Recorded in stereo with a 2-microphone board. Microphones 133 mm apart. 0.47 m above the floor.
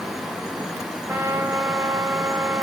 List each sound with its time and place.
1.1 s a trumpet: 20° right (ahead or behind), 1.1 m